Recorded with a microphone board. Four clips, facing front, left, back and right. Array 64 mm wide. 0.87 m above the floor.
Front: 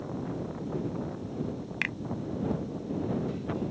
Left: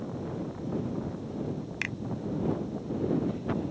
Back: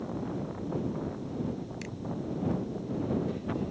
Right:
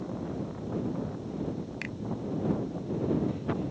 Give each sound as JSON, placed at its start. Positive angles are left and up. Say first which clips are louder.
{"t": 1.8, "sound": "a finger snap", "louder": "left 3 dB, front 8 dB", "azimuth_deg": 15}